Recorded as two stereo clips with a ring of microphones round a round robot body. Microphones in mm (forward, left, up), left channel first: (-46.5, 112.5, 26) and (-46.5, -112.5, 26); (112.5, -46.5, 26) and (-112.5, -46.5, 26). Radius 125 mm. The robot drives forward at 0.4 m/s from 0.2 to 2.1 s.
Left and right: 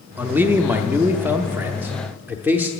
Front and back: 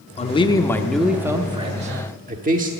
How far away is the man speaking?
About 0.7 m.